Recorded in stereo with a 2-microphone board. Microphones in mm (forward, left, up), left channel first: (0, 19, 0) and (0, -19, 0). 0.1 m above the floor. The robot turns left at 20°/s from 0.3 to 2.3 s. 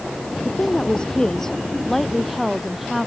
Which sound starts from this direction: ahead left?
A woman speaking, at 0.5 s.